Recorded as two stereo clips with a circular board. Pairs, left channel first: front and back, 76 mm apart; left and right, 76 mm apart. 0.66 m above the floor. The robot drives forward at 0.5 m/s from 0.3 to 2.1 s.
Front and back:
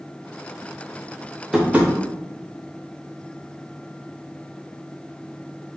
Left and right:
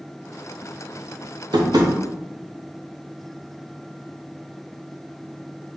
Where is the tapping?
100° right, 0.6 m; by 1.9 s 115° right, 0.7 m.